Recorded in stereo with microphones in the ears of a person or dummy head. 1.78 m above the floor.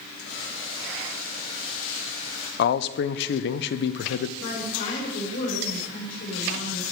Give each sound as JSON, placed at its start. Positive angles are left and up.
{"t": 0.2, "sound": "boiling", "side_deg": 75, "distance_m": 5.0}
{"t": 2.6, "sound": "a man speaking", "side_deg": 65, "distance_m": 0.5}
{"t": 4.4, "sound": "a woman speaking", "side_deg": 75, "distance_m": 5.0}